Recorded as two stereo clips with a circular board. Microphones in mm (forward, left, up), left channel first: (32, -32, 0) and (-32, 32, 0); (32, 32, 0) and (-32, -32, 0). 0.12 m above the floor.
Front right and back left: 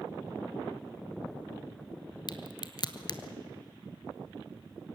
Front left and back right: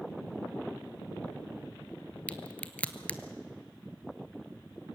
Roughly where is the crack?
Ahead right.